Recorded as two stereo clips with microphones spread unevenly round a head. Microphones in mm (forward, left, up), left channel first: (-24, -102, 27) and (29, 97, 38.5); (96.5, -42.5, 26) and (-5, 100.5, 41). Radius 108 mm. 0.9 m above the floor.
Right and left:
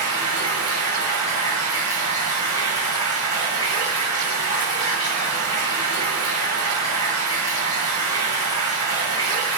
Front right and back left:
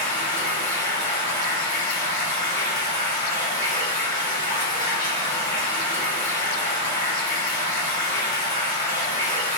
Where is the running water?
125° right, 1.5 m.